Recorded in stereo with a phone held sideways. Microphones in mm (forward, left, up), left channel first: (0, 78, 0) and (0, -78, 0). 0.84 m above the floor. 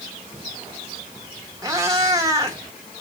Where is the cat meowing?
25° right (ahead or behind), 1.2 m.